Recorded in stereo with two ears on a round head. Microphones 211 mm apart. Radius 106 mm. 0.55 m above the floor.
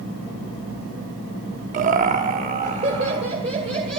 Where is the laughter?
35° right (ahead or behind), 0.8 m; by 4.0 s 25° right (ahead or behind), 2.5 m.